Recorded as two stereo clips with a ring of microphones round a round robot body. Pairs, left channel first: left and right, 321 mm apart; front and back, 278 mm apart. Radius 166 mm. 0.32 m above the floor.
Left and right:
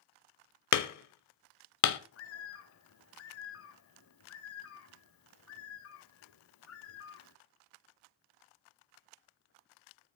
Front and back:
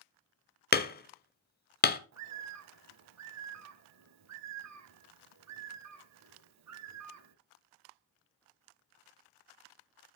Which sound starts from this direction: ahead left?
Hammering, at 0.7 s.